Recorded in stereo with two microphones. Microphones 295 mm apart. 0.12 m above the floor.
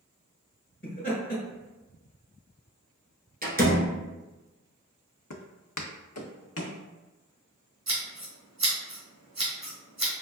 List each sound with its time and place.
0.8 s laughter: 30° left (ahead or behind), 1.7 m
3.4 s a door slam: 30° right (ahead or behind), 1.0 m
5.3 s footsteps: 70° left (ahead or behind), 0.6 m; by 6.8 s 45° left (ahead or behind), 1.0 m
7.9 s scissors: 65° right (ahead or behind), 1.9 m